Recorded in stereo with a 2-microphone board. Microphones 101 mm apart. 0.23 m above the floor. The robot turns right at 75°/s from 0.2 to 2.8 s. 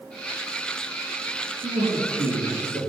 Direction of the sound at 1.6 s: 140° right.